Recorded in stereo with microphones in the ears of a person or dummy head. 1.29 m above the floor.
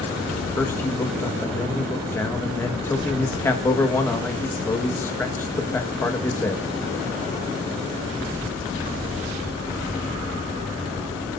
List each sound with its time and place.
0.6 s a man speaking: 10° left (ahead or behind), 1.7 m